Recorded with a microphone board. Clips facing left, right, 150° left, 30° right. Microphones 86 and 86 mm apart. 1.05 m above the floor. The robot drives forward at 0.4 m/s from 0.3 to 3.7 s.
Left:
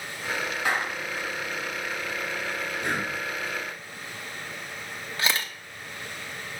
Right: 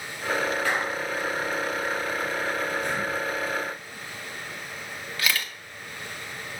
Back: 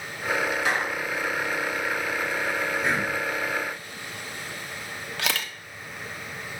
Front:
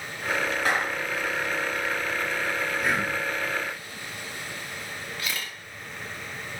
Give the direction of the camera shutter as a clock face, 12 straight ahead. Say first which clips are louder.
Left 1 dB, back 6 dB; 7 o'clock.